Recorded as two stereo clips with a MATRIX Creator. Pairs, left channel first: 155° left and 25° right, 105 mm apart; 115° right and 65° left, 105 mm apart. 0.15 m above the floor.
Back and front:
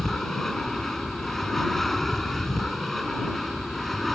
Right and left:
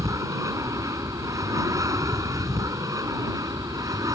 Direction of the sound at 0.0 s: 75° left.